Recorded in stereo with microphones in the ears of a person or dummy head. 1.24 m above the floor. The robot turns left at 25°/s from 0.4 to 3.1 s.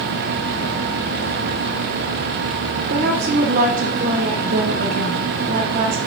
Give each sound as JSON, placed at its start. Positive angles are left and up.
{"t": 2.9, "sound": "a woman speaking", "side_deg": -50, "distance_m": 0.8}